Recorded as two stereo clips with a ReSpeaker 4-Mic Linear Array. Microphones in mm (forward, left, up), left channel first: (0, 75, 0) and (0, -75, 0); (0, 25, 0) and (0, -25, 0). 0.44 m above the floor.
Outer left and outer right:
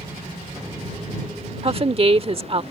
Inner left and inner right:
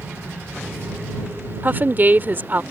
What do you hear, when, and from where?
1.6 s a woman speaking: 40° right (ahead or behind)